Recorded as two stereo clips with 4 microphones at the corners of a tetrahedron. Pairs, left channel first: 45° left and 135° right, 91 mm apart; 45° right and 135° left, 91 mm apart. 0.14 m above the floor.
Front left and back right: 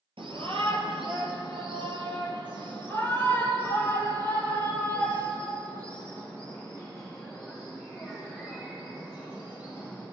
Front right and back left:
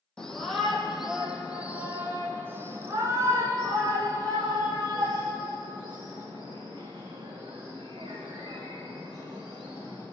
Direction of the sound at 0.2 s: 130° right.